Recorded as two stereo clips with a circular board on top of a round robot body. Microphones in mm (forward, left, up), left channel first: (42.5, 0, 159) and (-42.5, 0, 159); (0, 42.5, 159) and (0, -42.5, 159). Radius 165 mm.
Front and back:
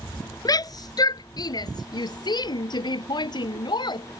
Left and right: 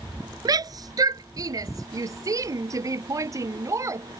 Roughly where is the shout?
Ahead right.